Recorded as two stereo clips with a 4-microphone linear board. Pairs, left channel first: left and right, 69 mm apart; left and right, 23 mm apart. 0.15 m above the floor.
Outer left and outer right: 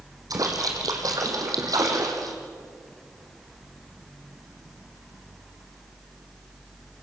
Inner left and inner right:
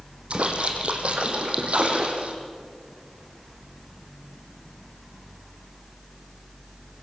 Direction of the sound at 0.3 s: 60° right (ahead or behind).